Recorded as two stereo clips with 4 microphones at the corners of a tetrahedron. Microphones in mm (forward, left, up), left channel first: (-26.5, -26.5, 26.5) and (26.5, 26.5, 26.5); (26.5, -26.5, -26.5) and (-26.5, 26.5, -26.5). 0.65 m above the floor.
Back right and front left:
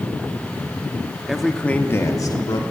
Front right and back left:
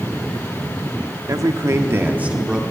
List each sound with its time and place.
1.3 s a man speaking: 125° left, 1.1 m; by 2.6 s 145° right, 1.4 m